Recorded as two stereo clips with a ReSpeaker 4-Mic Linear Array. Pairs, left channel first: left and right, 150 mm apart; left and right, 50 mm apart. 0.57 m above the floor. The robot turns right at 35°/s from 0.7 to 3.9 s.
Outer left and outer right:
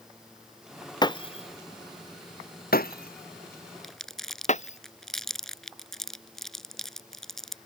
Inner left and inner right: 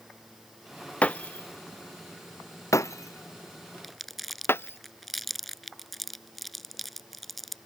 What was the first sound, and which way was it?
Breaking glass, 30° left (ahead or behind).